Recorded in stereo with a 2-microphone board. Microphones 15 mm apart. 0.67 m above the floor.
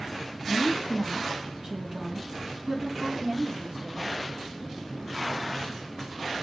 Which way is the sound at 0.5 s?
5° right (ahead or behind).